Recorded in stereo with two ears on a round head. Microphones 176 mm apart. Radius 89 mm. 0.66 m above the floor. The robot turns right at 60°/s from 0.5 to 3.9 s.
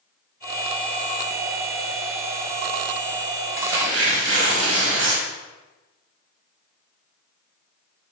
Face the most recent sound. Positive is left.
turn(degrees=-75)  # may be behind; listen again after turning